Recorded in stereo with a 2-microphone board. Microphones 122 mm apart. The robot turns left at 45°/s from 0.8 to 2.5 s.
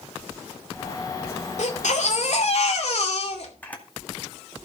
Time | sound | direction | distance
1.6 | a baby crying | 105° left | 2.5 m
3.6 | a camera shutter | 10° left (ahead or behind) | 2 m